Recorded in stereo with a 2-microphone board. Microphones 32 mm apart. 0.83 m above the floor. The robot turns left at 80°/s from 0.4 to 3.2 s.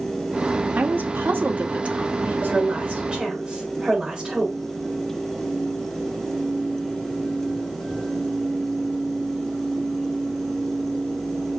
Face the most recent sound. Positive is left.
turn(degrees=-165)